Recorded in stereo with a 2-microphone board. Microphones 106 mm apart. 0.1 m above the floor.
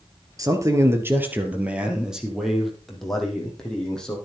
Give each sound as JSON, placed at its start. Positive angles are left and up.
{"t": 0.4, "sound": "a man speaking", "side_deg": -35, "distance_m": 2.0}